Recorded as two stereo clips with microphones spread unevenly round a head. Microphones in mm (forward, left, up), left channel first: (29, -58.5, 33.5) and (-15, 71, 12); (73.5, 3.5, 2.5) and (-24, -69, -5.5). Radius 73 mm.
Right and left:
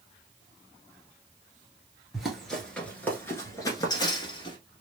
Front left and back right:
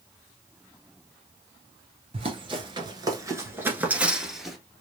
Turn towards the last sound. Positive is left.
turn(degrees=-50)